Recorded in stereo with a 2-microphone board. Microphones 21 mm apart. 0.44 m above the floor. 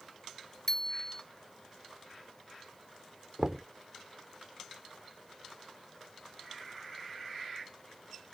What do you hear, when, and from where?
0.7 s a bicycle bell: 20° left (ahead or behind)
3.4 s knocking: 35° right (ahead or behind)